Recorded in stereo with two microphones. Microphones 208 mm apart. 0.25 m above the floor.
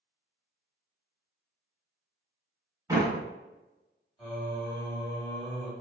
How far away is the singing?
About 1.1 m.